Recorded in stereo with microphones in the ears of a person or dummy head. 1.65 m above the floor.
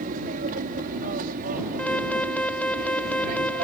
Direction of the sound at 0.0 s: 55° right (ahead or behind).